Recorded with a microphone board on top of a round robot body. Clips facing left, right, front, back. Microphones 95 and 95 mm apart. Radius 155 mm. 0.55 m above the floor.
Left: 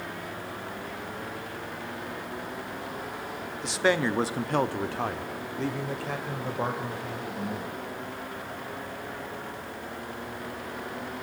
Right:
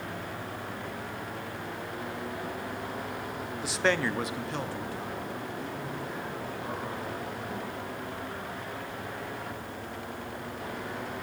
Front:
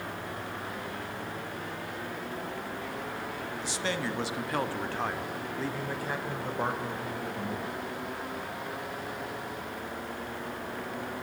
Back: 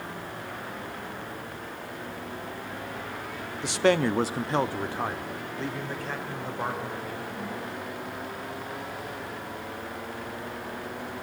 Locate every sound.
3.6 s a man speaking: 175° right, 1.2 m; by 7.8 s 70° left, 4.5 m